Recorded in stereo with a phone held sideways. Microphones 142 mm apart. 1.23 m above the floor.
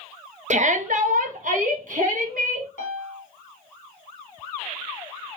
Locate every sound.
0.5 s a shout: 60° right (ahead or behind), 0.6 m; by 2.7 s 70° right (ahead or behind), 2 m
2.8 s a piano: 65° left (ahead or behind), 1.2 m